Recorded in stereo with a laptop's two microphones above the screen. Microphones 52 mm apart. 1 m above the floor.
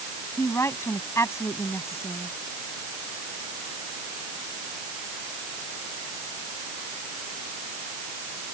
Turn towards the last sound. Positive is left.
turn(degrees=60)  # may be behind; listen again after turning